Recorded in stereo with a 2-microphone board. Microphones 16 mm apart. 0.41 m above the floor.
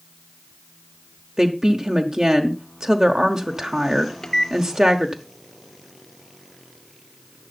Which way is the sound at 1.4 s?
45° right (ahead or behind).